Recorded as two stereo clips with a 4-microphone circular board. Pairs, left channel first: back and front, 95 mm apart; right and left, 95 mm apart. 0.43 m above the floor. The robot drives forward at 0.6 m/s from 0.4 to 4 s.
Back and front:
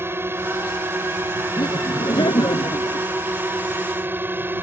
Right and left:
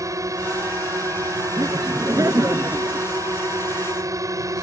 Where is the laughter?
140° left; by 3.1 s 150° left.